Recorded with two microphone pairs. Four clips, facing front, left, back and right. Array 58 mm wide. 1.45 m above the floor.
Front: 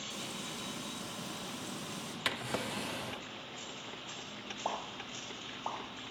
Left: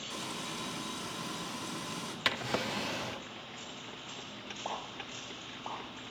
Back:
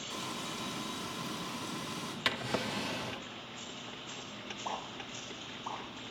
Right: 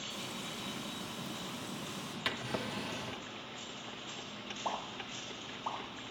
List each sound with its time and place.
0.1 s frying: 120° left, 2.5 m
2.2 s a drawer: 90° left, 0.5 m
4.7 s a pop: 10° left, 3 m